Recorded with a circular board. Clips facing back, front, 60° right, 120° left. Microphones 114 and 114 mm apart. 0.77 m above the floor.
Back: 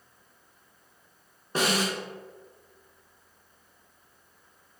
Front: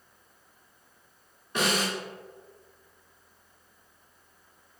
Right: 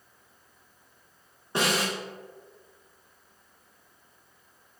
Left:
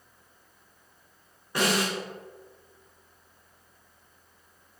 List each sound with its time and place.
1.6 s a snare drum: 125° right, 1.4 m